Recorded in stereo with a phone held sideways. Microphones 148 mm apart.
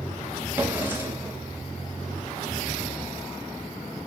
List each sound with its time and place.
0.6 s a drawer: 15° right (ahead or behind), 0.8 m